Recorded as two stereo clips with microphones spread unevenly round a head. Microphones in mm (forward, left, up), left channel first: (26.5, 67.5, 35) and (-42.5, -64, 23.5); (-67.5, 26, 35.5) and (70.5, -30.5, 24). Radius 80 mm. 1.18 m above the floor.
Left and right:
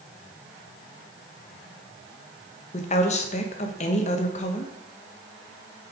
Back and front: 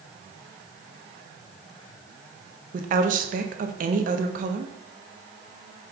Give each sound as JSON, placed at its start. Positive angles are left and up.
{"t": 2.7, "sound": "a woman speaking", "azimuth_deg": 15, "distance_m": 0.9}